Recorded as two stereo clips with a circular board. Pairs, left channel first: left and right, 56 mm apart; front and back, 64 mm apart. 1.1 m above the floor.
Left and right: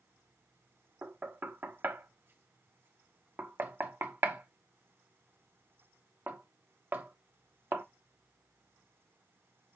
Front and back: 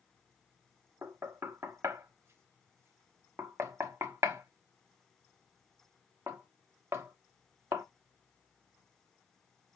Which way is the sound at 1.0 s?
135° right.